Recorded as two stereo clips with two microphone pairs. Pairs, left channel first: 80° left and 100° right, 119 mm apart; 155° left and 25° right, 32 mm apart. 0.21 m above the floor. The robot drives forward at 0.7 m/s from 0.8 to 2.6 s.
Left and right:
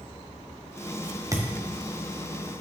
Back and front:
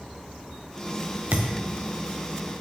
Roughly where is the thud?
Ahead right.